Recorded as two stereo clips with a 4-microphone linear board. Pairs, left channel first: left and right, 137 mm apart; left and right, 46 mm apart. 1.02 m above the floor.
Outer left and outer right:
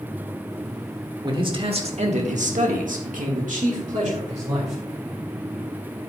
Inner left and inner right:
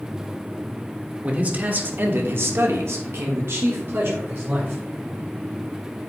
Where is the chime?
No chime in this recording.